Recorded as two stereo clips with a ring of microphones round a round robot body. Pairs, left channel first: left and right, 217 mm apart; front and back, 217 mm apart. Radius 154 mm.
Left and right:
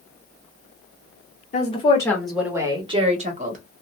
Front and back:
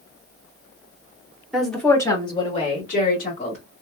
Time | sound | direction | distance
1.5 | a woman speaking | 95° left | 1.0 m